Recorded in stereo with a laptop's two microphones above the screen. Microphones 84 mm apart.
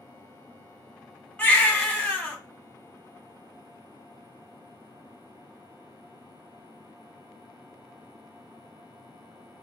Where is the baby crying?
15° left (ahead or behind), 1.1 m.